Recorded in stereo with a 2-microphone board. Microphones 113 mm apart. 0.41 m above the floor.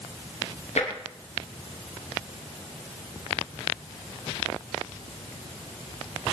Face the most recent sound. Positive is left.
turn(degrees=85)